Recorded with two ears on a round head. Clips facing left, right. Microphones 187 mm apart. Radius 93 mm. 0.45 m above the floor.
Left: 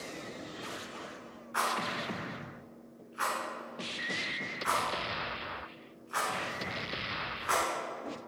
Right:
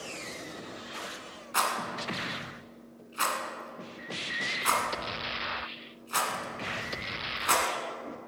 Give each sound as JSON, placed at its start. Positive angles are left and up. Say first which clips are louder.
{"t": 1.5, "sound": "a rattle", "louder": "right 1 dB", "side_deg": -55, "distance_m": 1.2}